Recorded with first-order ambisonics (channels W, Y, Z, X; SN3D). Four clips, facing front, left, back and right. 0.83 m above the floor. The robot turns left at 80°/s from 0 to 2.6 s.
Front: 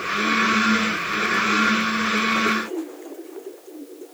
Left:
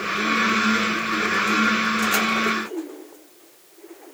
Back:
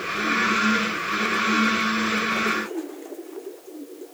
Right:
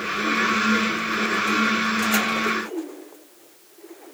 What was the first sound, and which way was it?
Only background noise.